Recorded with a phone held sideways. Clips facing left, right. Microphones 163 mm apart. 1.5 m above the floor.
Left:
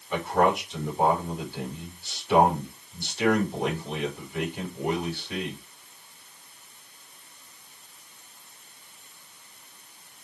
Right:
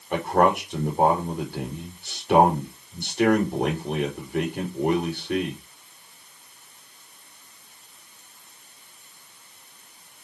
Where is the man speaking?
55° right (ahead or behind), 5 m.